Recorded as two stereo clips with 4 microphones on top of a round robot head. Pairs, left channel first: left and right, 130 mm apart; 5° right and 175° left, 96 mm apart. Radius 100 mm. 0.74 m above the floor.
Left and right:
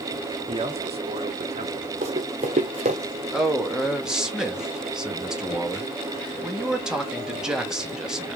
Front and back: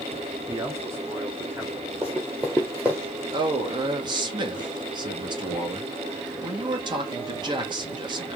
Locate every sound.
0.5 s a man speaking: 135° right, 1.1 m; by 1.9 s 115° right, 1.7 m
2.0 s running footsteps: 105° right, 1.0 m
3.3 s a man speaking: 175° right, 1.4 m